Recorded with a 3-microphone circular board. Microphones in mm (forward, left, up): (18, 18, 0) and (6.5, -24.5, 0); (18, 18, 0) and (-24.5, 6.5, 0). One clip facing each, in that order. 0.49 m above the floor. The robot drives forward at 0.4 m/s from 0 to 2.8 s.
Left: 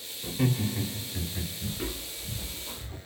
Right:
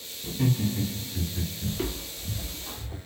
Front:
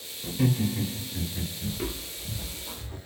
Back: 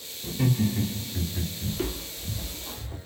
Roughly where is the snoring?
No snoring in this recording.